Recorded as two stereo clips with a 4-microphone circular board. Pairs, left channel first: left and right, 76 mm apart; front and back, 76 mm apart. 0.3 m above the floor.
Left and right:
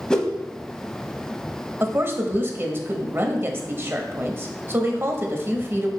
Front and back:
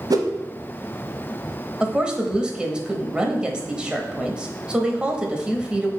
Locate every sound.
0.1 s a whoosh: 170° left, 0.8 m
1.8 s a woman speaking: 115° right, 1.0 m